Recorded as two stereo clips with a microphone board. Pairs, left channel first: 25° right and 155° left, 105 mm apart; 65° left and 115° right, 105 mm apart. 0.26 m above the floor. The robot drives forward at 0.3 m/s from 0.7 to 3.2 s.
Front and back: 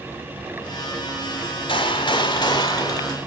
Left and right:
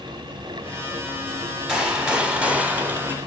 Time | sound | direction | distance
1.7 | a gunshot | 30° right | 1.2 m